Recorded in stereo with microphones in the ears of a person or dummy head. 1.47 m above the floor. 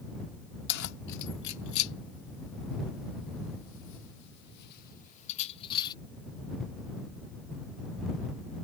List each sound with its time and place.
0.7 s keys jangling: 60° left (ahead or behind); by 6.0 s 25° left (ahead or behind)